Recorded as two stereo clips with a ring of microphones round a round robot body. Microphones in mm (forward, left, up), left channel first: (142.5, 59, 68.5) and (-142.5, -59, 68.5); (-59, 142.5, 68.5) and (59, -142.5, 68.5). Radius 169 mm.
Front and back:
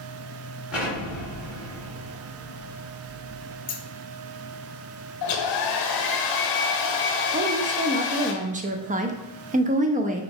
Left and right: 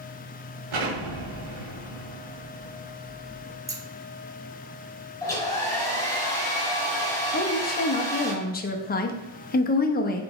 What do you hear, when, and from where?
0.7 s an explosion: 70° right, 1.6 m
3.7 s scissors: straight ahead, 0.7 m
5.2 s a hair dryer: 35° left, 0.8 m
7.3 s a woman speaking: 155° left, 0.6 m